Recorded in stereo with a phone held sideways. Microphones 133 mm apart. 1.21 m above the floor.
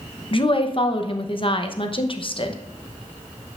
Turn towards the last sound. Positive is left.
turn(degrees=40)  # may be behind; listen again after turning